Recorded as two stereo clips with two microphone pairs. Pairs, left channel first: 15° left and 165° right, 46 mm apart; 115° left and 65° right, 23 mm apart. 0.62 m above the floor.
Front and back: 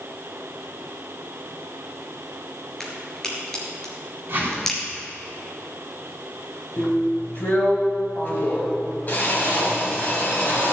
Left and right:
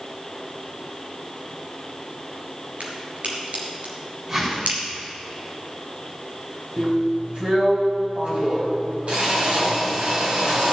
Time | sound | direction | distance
2.8 | a crack | 65° right | 3.5 m
4.3 | a whoosh | 125° right | 5.5 m
6.8 | a drill | 35° right | 4.5 m